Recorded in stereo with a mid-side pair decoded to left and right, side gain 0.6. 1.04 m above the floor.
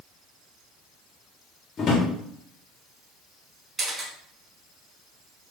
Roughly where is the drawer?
Ahead left.